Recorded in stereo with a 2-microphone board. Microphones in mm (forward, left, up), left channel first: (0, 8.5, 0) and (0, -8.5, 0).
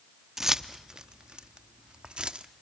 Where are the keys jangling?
20° right (ahead or behind), 0.8 m; by 2.5 s 60° right (ahead or behind), 1.0 m.